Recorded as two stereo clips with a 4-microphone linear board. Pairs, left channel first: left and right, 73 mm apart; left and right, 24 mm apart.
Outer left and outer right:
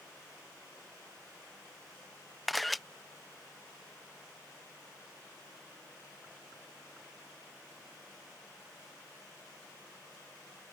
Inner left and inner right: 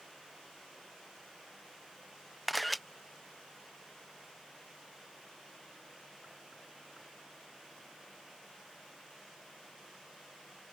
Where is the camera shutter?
Centre (ahead or behind).